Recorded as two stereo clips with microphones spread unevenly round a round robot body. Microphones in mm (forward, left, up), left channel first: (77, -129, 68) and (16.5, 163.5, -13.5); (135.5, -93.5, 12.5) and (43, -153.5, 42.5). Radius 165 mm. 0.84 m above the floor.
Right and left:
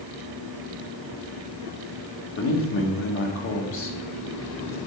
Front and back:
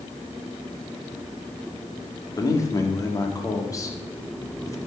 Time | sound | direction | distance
2.4 | a man speaking | 25° right | 1.7 m